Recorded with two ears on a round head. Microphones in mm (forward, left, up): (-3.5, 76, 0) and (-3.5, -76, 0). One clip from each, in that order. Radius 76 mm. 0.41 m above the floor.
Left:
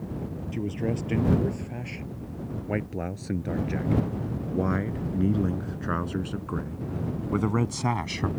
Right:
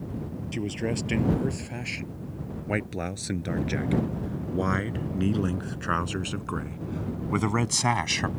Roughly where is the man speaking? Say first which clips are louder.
Right 1 dB; right.